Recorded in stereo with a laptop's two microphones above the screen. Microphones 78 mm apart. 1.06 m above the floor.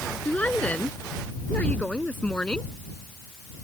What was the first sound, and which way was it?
A woman speaking, 20° left (ahead or behind).